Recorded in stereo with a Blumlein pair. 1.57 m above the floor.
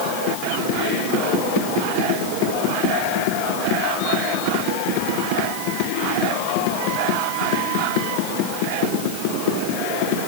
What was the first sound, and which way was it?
Only background noise.